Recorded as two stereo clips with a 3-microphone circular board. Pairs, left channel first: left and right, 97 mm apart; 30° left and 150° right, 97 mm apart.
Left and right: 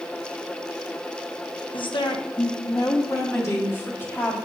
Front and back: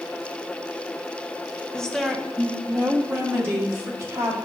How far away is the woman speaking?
About 0.9 m.